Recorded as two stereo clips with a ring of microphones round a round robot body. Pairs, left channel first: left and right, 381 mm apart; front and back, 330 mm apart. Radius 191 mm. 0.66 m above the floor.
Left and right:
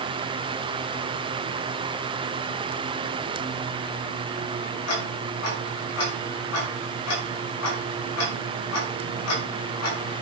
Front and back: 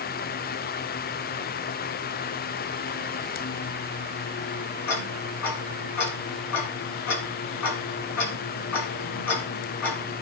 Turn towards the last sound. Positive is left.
turn(degrees=40)